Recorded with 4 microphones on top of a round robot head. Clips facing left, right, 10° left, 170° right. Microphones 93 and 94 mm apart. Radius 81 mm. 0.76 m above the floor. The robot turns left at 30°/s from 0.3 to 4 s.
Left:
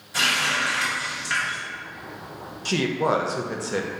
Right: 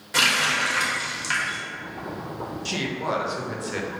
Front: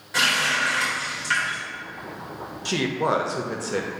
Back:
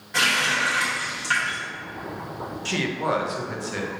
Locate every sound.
0.1 s a running tap: 80° right, 1.0 m; by 1.6 s 115° right, 1.0 m
2.6 s a woman speaking: 75° left, 0.6 m; by 3.9 s 35° left, 0.6 m